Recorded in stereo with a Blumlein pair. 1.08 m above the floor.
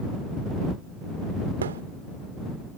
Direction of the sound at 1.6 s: 65° right.